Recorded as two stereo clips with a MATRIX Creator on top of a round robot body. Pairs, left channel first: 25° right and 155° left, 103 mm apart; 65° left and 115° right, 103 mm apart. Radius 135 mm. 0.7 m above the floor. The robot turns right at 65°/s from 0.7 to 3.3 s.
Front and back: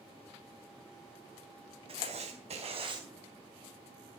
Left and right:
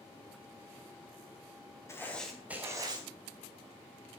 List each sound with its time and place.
1.9 s writing: 130° left, 4.5 m; by 3.0 s 155° right, 4.5 m